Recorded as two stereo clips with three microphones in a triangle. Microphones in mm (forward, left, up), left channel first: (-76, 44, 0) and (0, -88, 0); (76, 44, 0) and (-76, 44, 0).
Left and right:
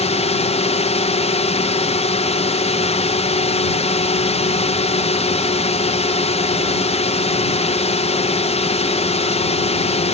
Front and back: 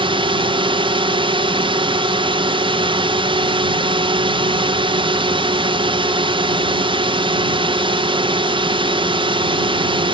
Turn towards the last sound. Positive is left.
turn(degrees=140)